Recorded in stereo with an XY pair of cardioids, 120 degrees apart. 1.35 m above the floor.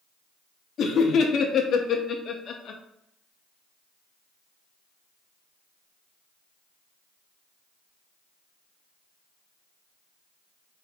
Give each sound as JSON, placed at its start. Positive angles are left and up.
{"t": 0.8, "sound": "laughter", "azimuth_deg": 50, "distance_m": 0.6}